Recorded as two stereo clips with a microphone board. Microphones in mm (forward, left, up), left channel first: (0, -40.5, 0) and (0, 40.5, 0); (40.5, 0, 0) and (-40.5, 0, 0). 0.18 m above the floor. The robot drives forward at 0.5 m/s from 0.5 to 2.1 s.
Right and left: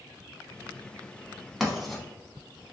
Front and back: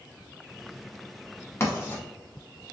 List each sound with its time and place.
1.6 s writing: straight ahead, 0.9 m